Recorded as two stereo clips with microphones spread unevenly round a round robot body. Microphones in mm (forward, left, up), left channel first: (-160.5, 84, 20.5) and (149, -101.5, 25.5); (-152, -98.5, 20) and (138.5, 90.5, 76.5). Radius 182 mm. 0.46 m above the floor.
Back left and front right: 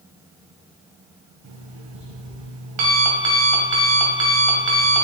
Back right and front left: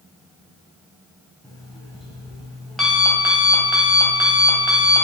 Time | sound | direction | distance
1.4 | an alarm clock | 60° right | 2 m